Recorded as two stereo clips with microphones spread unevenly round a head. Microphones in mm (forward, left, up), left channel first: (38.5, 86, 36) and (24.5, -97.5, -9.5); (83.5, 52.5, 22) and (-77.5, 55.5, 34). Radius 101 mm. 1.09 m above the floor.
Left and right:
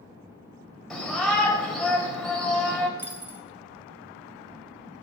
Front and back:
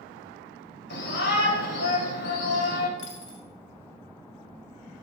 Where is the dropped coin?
10° right, 2.5 m.